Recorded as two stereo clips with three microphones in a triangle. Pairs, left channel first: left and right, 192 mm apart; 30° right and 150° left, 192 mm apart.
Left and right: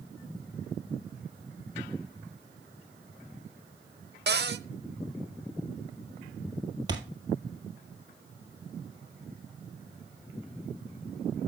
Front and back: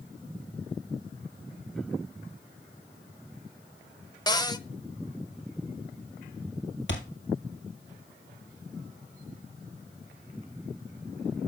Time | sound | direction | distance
4.3 | a cupboard door | 100° right | 0.7 m
6.9 | a thud | 20° right | 1.9 m